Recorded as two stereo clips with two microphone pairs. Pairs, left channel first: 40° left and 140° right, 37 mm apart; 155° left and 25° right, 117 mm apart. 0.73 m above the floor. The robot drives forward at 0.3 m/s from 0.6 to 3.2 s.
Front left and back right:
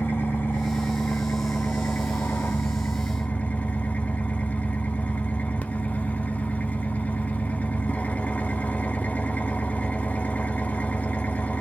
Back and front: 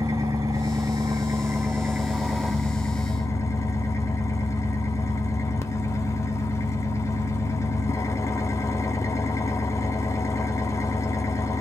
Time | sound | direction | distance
0.0 | an engine running | 35° left | 0.9 m